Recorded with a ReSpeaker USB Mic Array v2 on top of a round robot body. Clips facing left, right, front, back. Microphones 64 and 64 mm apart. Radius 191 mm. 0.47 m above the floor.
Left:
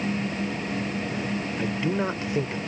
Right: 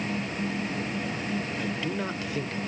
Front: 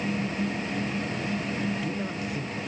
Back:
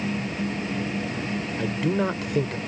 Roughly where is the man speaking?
Behind left.